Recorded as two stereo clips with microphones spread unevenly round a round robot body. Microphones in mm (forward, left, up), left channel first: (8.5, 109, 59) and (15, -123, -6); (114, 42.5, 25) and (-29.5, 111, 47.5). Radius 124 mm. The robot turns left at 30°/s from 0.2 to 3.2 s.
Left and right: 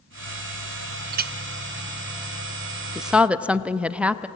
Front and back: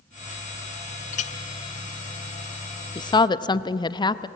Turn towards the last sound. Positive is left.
turn(degrees=-35)